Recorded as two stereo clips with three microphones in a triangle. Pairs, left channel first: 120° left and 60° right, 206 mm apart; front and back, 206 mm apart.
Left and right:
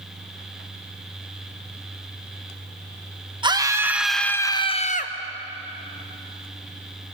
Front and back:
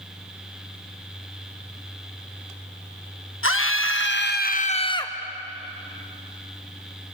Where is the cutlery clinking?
I don't hear cutlery clinking.